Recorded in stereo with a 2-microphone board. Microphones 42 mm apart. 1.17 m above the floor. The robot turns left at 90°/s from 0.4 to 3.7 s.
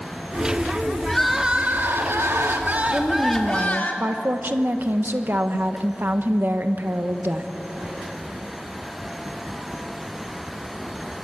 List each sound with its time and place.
1.1 s crying: 15° left, 2.5 m; by 3.9 s 140° left, 2.5 m
2.9 s a woman speaking: 10° left, 1.0 m; by 7.5 s 60° right, 1.0 m